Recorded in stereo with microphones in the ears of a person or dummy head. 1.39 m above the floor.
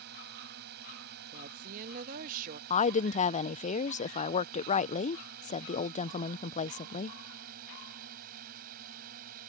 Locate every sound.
0.0 s a drone: 55° right (ahead or behind); by 9.5 s 50° right (ahead or behind)
1.3 s a woman speaking: 45° right (ahead or behind)
2.7 s a woman speaking: 35° left (ahead or behind)